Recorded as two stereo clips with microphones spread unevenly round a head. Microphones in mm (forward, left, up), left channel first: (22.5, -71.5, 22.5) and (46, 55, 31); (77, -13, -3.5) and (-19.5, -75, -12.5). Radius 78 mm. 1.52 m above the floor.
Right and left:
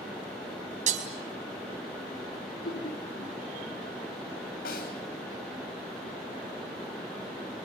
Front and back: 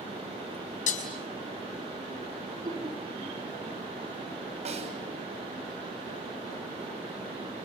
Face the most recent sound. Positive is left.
turn(degrees=-120)